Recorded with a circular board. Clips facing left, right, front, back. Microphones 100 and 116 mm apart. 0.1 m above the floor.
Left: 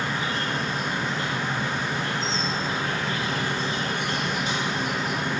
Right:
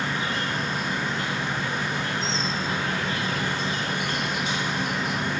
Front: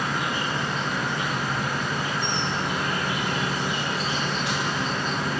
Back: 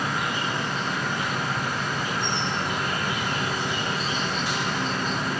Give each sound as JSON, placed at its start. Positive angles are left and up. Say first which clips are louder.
{"t": 0.0, "sound": "an insect", "louder": "even, even", "azimuth_deg": 130, "distance_m": 1.4}